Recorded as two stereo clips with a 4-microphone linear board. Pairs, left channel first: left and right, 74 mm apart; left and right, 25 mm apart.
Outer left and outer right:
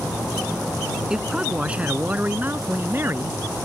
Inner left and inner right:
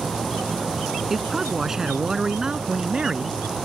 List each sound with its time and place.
1.1 s a man speaking: 10° right (ahead or behind); by 3.4 s 35° right (ahead or behind)